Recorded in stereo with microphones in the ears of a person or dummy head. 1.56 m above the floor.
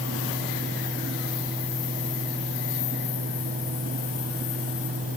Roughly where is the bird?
I don't hear a bird.